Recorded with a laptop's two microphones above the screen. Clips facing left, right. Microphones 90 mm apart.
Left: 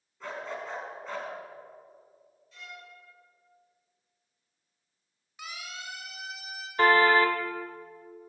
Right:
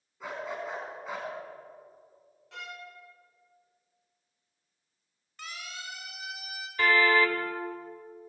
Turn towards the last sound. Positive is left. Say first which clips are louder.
# left 3 dB
turn(degrees=40)  # may be behind; listen again after turning